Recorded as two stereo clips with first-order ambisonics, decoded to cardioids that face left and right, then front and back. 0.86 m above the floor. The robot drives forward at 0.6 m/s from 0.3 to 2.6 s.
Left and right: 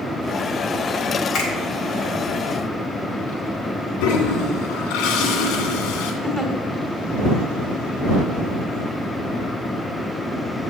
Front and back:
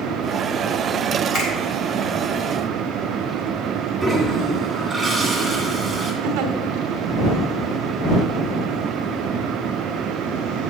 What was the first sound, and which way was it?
A finger snap, 40° left.